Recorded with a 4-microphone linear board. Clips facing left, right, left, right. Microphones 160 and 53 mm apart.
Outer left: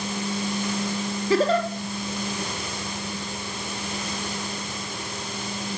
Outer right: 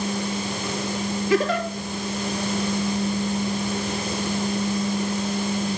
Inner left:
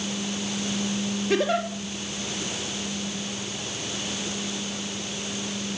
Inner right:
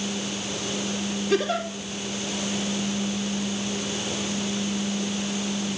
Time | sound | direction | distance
1.3 | a giggle | 30° left (ahead or behind) | 2 m